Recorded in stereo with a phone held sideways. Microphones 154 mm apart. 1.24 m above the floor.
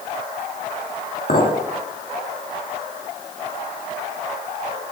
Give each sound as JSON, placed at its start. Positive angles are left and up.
{"t": 1.3, "sound": "a clink", "side_deg": 70, "distance_m": 1.9}